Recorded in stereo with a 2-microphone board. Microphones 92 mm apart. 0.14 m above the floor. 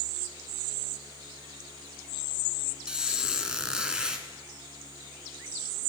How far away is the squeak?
About 1.2 m.